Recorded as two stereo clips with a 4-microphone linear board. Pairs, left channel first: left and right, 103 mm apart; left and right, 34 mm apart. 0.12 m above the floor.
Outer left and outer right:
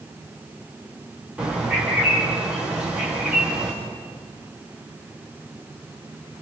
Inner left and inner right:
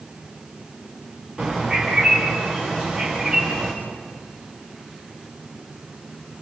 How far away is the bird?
About 5.5 m.